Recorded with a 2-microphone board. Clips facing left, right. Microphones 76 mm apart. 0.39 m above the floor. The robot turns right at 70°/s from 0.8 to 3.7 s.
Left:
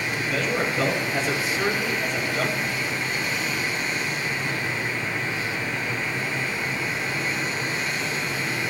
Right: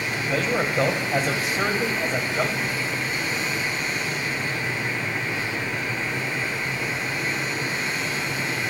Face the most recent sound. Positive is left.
turn(degrees=70)